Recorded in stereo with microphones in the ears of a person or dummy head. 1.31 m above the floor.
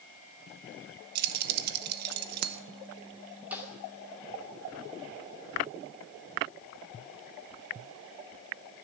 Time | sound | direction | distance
1.1 | keys jangling | 55° right (ahead or behind) | 0.8 m
3.5 | a snare drum | 10° right (ahead or behind) | 2 m